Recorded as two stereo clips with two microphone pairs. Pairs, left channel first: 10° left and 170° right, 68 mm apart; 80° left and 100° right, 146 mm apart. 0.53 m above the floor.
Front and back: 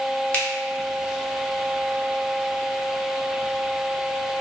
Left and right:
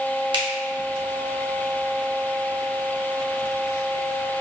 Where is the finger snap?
55° right, 0.8 m.